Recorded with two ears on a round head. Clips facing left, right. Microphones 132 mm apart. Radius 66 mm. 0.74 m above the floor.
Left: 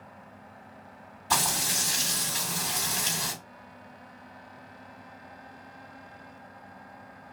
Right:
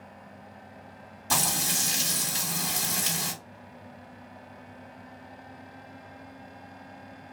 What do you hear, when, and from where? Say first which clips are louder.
1.3 s frying: left 1 dB; 50° right (ahead or behind), 1.8 m